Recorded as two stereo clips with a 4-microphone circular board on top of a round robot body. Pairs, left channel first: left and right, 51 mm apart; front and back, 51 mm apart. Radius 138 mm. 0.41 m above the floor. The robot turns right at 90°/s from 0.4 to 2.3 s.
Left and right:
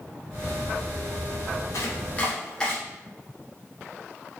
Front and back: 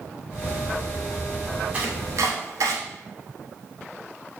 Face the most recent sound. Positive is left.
turn(degrees=165)